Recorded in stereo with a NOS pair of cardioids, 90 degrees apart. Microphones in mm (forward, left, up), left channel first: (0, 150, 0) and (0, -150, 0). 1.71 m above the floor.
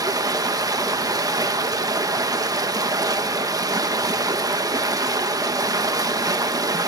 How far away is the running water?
About 1.7 m.